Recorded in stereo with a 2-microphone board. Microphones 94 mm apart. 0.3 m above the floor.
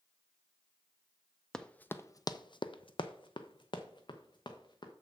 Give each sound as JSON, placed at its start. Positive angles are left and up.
{"t": 1.5, "sound": "running footsteps", "side_deg": 5, "distance_m": 0.6}